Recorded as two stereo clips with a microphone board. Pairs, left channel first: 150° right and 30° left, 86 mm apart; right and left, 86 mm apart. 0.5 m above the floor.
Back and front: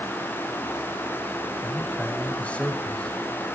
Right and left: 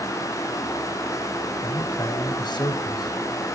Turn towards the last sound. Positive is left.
turn(degrees=-75)